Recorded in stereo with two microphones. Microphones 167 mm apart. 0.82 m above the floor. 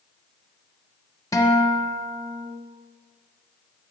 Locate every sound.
1.3 s a guitar: 20° left (ahead or behind), 0.7 m